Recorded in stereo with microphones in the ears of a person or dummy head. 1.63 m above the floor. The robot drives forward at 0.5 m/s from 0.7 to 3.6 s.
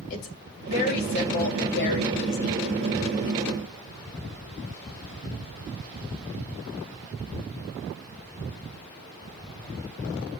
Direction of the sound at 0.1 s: 50° left (ahead or behind).